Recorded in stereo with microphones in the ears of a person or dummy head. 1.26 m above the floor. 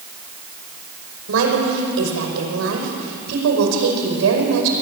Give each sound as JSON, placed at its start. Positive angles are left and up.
{"t": 1.3, "sound": "a woman speaking", "side_deg": -75, "distance_m": 5.5}